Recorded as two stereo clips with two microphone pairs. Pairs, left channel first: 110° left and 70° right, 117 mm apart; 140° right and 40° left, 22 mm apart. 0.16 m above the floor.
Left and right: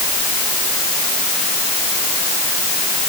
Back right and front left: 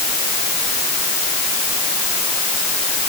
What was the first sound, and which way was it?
Only background noise.